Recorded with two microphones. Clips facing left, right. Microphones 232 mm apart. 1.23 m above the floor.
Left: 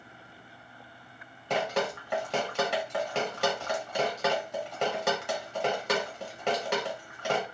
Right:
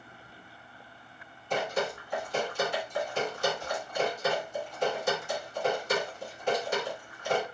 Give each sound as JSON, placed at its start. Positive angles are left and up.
{"t": 1.5, "sound": "dripping", "side_deg": 75, "distance_m": 1.2}